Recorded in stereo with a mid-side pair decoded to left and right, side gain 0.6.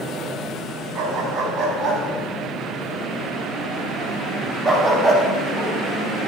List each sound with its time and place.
0.9 s a dog barking: 60° right, 5.5 m; by 5.7 s 15° right, 5 m